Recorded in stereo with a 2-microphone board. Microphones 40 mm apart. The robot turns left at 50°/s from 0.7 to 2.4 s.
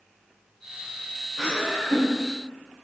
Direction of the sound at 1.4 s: 170° left.